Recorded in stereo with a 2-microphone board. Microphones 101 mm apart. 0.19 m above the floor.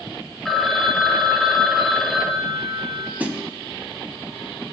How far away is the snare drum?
About 0.7 m.